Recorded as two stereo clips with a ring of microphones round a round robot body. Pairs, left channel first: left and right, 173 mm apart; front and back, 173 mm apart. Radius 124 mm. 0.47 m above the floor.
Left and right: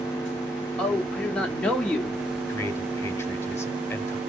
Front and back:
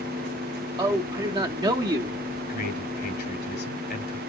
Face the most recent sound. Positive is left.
turn(degrees=15)